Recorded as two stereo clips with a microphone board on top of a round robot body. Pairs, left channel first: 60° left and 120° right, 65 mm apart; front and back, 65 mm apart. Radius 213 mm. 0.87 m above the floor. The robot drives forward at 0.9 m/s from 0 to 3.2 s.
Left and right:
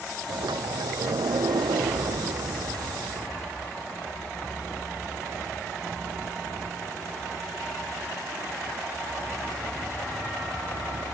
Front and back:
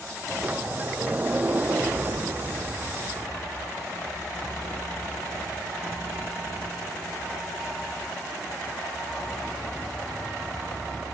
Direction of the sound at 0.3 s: 110° right.